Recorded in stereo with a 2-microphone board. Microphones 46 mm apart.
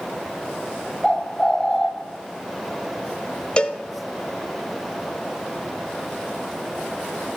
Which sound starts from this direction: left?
A cowbell, at 3.6 s.